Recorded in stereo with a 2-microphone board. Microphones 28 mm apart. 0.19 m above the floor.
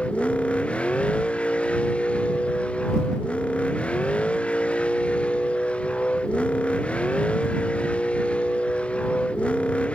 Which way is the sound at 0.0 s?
50° left (ahead or behind).